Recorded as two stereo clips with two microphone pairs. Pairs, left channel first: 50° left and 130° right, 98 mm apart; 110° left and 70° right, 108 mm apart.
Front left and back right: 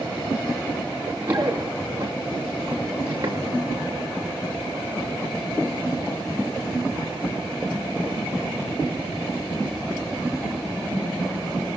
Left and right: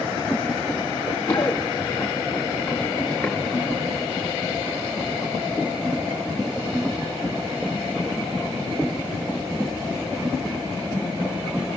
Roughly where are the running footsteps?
Behind.